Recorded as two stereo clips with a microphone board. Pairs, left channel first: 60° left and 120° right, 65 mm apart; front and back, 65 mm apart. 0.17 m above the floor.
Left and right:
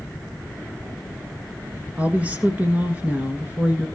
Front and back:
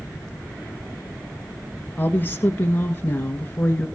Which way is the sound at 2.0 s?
55° right.